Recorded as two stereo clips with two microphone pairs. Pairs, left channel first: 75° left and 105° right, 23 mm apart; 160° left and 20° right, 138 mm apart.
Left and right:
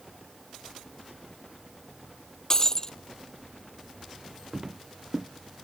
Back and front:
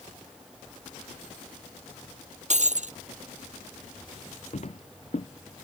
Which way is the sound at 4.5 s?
165° right.